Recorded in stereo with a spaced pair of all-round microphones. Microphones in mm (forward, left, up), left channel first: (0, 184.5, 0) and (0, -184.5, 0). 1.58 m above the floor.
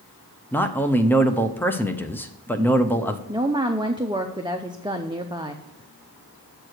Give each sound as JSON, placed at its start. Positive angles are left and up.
{"t": 0.5, "sound": "a man speaking", "side_deg": 5, "distance_m": 0.6}
{"t": 3.3, "sound": "a woman speaking", "side_deg": -15, "distance_m": 0.5}